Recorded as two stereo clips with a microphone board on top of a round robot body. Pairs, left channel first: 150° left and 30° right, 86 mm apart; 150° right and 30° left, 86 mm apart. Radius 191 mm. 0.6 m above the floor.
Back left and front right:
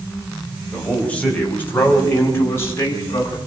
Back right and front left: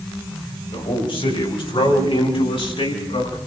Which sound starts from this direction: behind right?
A man speaking, at 0.7 s.